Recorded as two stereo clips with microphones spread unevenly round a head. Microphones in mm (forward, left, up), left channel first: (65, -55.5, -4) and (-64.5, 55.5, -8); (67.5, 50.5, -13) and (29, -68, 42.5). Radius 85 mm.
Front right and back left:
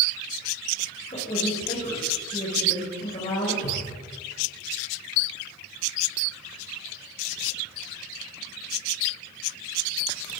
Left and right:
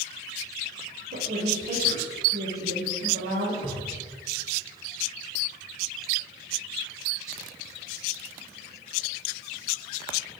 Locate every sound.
1.1 s a woman speaking: 100° right, 4.5 m
3.6 s a cupboard door: 60° right, 5.5 m